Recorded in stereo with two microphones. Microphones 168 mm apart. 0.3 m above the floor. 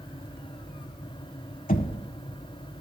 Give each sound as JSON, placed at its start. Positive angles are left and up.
{"t": 1.7, "sound": "knocking", "side_deg": 50, "distance_m": 1.1}